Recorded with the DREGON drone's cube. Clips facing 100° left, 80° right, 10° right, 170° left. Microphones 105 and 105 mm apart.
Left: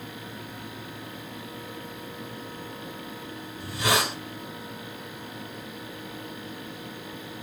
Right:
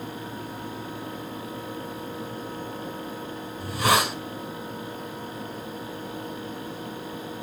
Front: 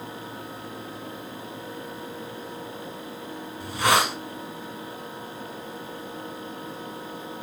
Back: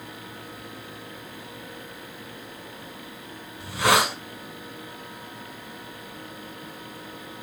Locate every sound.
3.6 s a hiss: 110° right, 1.6 m